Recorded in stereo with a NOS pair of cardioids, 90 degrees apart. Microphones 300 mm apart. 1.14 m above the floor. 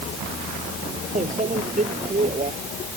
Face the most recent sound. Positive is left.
turn(degrees=-25)